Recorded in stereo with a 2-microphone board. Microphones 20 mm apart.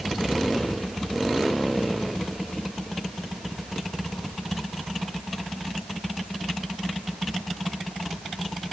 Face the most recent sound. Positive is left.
No sound to turn to.